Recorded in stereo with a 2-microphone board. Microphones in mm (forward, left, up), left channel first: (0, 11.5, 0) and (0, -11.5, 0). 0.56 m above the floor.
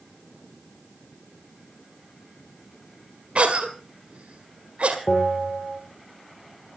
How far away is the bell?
About 6.5 m.